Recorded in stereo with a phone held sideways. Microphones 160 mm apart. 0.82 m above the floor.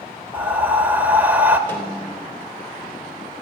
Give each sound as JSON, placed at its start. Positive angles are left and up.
{"t": 0.3, "sound": "breathing", "side_deg": -10, "distance_m": 0.9}
{"t": 1.7, "sound": "a snare drum", "side_deg": 15, "distance_m": 3.0}